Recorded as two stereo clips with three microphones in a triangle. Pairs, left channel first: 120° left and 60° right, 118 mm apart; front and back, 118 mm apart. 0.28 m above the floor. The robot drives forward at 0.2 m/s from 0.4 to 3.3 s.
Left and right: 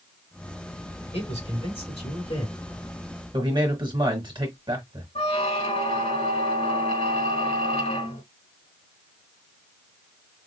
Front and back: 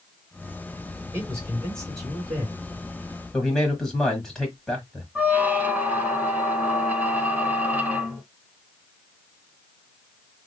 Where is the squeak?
105° left, 1.0 m.